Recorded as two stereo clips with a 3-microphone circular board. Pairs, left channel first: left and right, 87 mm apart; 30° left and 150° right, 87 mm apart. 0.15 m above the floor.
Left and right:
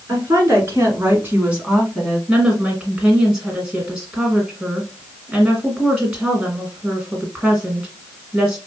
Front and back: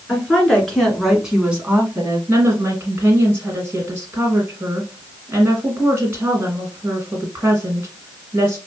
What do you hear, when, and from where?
0.1 s a woman speaking: 45° right, 2.0 m; by 2.2 s straight behind, 1.3 m
2.3 s a woman speaking: 160° right, 1.6 m